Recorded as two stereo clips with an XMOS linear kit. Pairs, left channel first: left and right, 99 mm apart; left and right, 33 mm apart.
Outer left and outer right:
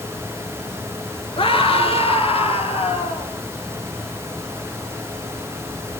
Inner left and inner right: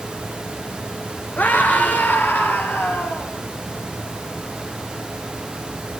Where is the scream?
65° left (ahead or behind), 3 m; by 3.3 s 75° left (ahead or behind), 4.5 m.